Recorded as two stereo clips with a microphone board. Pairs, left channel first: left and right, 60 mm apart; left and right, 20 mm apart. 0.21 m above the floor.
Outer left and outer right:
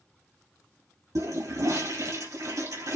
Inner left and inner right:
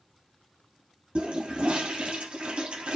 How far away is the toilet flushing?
About 2.5 m.